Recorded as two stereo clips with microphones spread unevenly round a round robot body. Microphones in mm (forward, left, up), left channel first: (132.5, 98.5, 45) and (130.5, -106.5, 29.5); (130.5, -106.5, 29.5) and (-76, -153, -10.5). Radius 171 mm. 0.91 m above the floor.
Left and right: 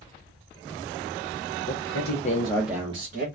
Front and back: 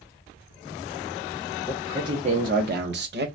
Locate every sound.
1.7 s a man speaking: 110° left, 0.9 m; by 3.3 s 140° right, 0.9 m